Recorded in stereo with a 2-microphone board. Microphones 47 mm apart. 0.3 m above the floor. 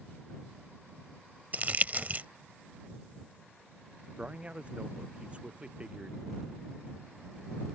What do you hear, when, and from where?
1.5 s crumpling: 35° right (ahead or behind)
4.2 s a man speaking: 25° right (ahead or behind)